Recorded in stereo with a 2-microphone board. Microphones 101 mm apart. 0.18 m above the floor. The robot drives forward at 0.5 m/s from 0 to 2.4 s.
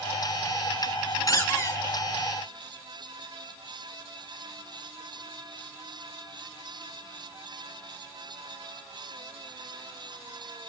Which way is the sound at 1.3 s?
30° left (ahead or behind).